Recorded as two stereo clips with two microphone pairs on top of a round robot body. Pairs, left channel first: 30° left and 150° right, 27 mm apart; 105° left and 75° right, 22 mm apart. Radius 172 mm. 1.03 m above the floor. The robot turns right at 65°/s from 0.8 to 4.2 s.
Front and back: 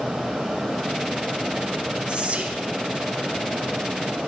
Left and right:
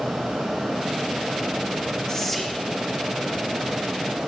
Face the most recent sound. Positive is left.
turn(degrees=-60)